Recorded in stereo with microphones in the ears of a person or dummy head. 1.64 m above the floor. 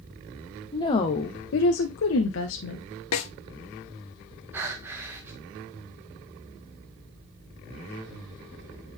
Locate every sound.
0.7 s a woman speaking: 15° left (ahead or behind), 0.7 m; by 2.9 s 65° left (ahead or behind), 1.0 m
3.1 s a snare drum: 80° left, 0.6 m
4.5 s breathing: 15° right (ahead or behind), 1.0 m